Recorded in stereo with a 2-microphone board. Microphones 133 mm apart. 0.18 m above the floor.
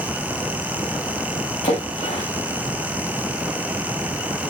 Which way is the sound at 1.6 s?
65° left (ahead or behind).